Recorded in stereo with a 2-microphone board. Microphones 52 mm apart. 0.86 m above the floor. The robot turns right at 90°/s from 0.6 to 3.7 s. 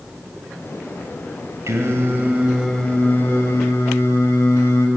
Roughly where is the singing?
Right.